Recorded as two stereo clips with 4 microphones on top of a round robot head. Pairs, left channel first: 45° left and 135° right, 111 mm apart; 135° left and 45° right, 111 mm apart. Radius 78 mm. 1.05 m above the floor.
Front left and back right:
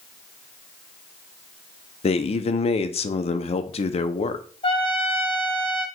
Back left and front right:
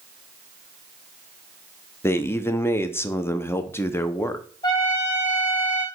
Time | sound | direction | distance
2.0 | a man speaking | 70° left | 0.5 m
4.6 | a trumpet | 80° left | 1.9 m